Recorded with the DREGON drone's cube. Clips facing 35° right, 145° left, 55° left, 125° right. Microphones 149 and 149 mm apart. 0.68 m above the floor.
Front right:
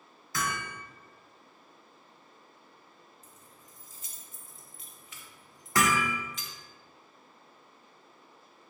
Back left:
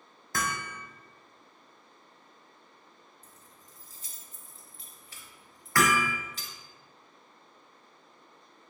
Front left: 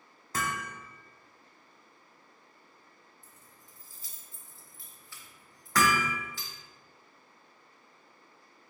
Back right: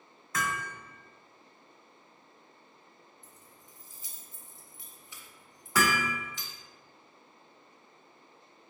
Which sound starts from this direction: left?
Hammering, at 0.3 s.